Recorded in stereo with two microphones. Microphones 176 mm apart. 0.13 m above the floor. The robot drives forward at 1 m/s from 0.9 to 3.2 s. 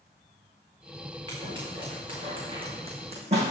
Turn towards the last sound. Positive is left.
turn(degrees=-35)  # may be behind; listen again after turning